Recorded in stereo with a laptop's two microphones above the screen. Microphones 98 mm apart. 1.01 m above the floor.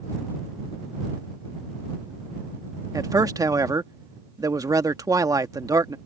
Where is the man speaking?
40° right (ahead or behind).